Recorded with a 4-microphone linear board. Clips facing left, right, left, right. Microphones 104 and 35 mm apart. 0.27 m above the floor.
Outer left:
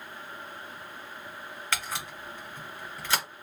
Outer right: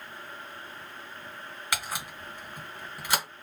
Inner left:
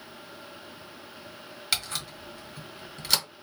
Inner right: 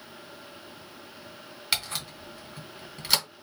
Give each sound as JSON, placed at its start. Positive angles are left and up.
{"t": 1.7, "sound": "a camera shutter", "side_deg": -10, "distance_m": 1.4}